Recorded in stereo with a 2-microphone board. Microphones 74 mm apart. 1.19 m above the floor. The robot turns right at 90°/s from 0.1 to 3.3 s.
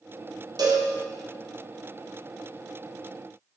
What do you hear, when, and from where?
0.6 s a cowbell: 80° right, 0.6 m; by 0.9 s 65° right (ahead or behind), 0.6 m